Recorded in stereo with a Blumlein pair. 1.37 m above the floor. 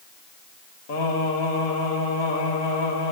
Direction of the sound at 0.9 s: 60° left.